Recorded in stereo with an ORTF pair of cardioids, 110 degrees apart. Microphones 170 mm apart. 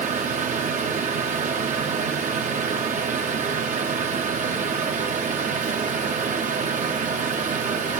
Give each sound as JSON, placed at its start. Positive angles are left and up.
{"t": 0.0, "sound": "a fan", "azimuth_deg": -50, "distance_m": 2.5}